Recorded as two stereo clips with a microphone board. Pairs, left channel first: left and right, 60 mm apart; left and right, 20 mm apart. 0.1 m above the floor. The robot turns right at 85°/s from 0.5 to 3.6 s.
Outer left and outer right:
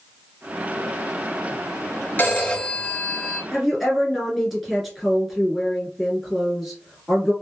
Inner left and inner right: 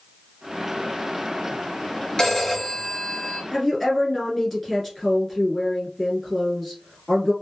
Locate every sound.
2.2 s a phone ringing: 105° left, 1.0 m; by 3.4 s 155° right, 1.0 m
3.5 s a woman speaking: 5° left (ahead or behind), 1.2 m; by 7.3 s centre (ahead or behind), 1.2 m